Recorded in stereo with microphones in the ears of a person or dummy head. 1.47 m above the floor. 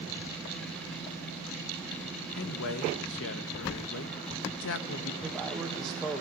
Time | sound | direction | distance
2.4 | a man speaking | 70° left (ahead or behind) | 1.1 m
5.2 | a man speaking | centre (ahead or behind) | 1.4 m